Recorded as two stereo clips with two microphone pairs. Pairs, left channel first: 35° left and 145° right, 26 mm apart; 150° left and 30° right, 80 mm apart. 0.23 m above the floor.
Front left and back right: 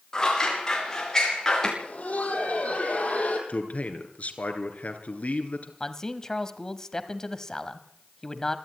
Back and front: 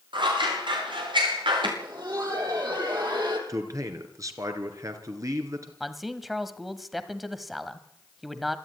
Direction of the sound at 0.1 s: 30° right.